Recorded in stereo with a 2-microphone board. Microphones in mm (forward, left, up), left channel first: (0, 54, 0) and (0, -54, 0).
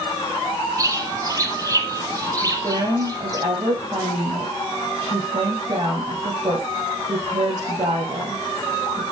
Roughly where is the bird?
Right.